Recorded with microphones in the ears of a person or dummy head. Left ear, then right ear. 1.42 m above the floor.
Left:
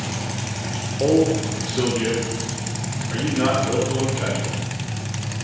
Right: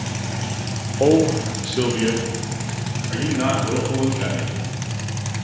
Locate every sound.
1.0 s a man speaking: 55° right (ahead or behind), 1.1 m; by 4.5 s 5° left (ahead or behind), 4.5 m